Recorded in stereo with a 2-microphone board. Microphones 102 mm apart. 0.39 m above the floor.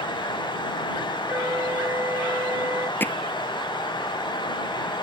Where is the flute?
25° right (ahead or behind).